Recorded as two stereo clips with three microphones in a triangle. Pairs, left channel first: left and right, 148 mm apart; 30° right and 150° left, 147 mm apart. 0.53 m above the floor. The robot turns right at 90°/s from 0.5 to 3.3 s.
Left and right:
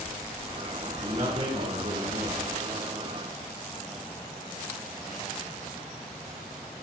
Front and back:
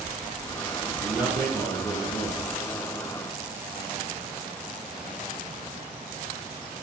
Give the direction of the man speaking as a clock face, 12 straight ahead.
5 o'clock.